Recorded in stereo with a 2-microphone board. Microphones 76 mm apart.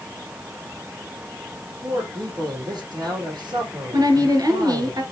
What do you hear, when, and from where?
1.6 s a man speaking: 60° right (ahead or behind), 3.5 m
3.9 s a woman speaking: 55° right (ahead or behind), 2 m